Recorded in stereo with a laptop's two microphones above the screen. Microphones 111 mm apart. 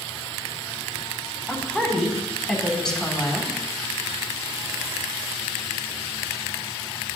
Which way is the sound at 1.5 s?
5° right (ahead or behind).